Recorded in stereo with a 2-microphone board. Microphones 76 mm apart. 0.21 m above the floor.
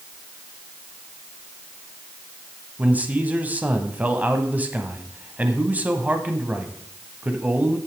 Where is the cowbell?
I don't hear a cowbell.